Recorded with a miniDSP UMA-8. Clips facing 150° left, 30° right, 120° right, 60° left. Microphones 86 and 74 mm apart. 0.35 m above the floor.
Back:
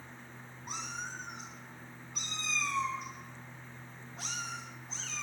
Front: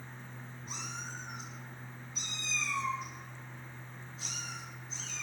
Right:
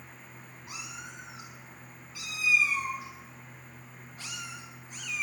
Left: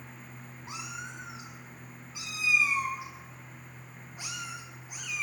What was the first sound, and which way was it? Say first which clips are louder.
A cat meowing: back 3 dB, left 3 dB; 125° left.